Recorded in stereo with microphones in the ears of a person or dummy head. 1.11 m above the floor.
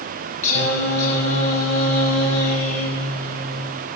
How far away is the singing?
About 7.5 m.